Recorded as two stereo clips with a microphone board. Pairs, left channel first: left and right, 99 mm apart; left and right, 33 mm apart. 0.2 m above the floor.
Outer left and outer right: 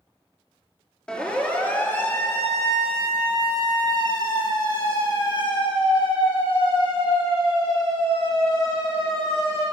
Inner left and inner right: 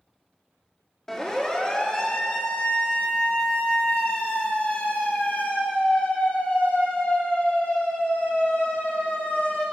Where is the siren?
10° left (ahead or behind), 4.5 m; by 9.6 s 70° left (ahead or behind), 11.5 m.